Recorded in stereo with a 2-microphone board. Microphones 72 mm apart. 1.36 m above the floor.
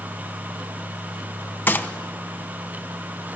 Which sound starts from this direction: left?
A gunshot, at 1.7 s.